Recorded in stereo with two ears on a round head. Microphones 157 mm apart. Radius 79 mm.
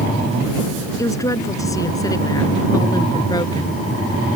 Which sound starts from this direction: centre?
A woman speaking, at 1.0 s.